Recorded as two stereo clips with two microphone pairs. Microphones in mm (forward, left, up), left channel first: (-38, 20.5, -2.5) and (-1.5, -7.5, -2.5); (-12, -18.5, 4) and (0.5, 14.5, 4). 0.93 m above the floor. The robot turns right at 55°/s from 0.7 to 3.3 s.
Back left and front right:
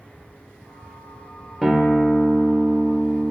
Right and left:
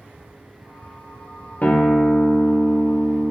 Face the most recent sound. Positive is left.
turn(degrees=-40)